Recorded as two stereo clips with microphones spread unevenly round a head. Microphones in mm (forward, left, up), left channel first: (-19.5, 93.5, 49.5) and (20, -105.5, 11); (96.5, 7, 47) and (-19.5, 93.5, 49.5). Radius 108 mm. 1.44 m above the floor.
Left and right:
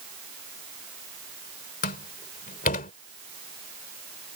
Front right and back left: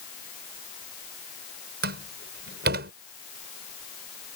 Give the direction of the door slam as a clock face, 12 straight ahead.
7 o'clock.